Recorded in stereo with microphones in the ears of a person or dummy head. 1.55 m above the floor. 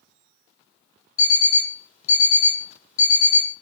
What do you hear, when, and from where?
1.2 s an alarm clock: 45° left (ahead or behind), 1.1 m